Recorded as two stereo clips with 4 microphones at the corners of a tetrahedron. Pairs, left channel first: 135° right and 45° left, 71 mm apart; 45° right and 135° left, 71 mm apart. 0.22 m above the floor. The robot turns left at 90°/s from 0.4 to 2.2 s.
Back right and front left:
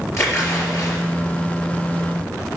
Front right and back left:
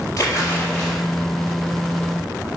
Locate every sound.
0.2 s a splash: 90° right, 4 m; by 1.0 s 145° right, 4 m